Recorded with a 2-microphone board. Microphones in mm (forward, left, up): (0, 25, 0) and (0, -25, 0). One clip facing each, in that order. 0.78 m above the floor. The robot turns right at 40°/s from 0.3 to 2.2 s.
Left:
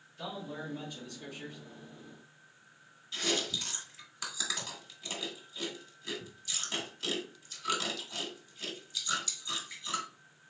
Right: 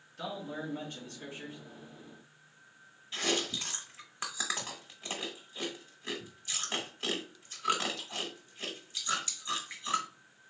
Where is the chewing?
30° right (ahead or behind), 1.1 m.